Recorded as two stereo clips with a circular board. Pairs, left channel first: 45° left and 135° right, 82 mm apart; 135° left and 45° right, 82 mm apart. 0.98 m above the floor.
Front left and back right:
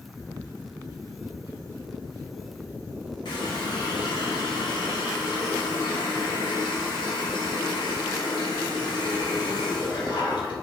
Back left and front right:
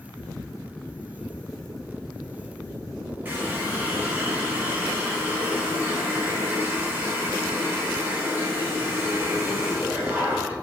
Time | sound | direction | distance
3.2 | a running tap | 20° left | 0.9 m